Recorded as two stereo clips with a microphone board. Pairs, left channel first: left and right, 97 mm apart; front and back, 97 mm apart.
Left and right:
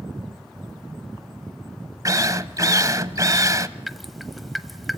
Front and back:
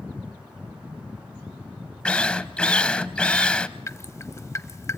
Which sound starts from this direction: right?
A drill, at 2.0 s.